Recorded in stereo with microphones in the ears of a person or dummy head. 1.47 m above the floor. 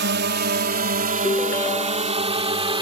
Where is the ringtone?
15° left (ahead or behind).